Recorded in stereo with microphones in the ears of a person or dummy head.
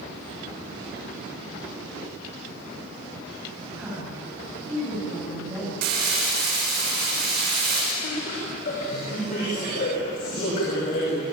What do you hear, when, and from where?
3.8 s a woman speaking: 5° right (ahead or behind), 10 m; by 5.7 s 15° right (ahead or behind), 7.5 m
5.8 s crumpling: 55° right (ahead or behind), 6.5 m
8.0 s laughter: 45° left (ahead or behind), 6 m